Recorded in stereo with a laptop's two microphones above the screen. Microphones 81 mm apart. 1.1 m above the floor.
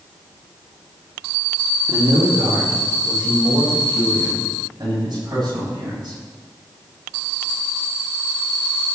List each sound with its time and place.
1.9 s a man speaking: 70° right (ahead or behind), 2.5 m; by 6.2 s 60° right (ahead or behind), 8.5 m